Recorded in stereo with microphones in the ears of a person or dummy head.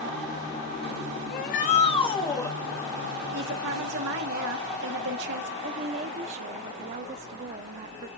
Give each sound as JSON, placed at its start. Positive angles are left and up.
{"t": 1.3, "sound": "a shout", "side_deg": 55, "distance_m": 1.8}
{"t": 3.3, "sound": "a woman speaking", "side_deg": -55, "distance_m": 1.8}
{"t": 5.6, "sound": "a woman speaking", "side_deg": -40, "distance_m": 0.7}